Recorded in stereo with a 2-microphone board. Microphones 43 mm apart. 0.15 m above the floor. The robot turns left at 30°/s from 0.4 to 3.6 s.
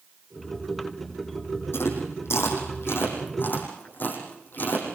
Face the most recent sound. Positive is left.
turn(degrees=50)  # may be behind; listen again after turning